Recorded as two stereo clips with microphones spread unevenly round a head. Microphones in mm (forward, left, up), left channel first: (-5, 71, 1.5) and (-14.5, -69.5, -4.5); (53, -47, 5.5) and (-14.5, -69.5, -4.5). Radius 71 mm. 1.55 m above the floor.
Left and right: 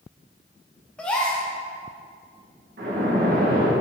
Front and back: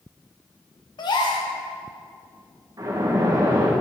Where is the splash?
120° right, 1.7 m.